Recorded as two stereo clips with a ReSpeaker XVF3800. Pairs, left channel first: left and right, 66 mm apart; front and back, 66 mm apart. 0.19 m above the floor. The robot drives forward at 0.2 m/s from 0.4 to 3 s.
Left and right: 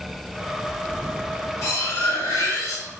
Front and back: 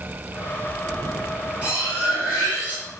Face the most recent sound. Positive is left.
turn(degrees=120)